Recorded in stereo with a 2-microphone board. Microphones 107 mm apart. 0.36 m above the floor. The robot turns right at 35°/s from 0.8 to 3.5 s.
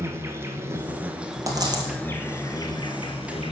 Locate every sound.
0.0 s an insect: 25° right, 0.9 m; by 3.5 s 70° left, 0.9 m
1.5 s a dropped coin: 30° right (ahead or behind), 1.7 m; by 1.9 s 45° right (ahead or behind), 1.7 m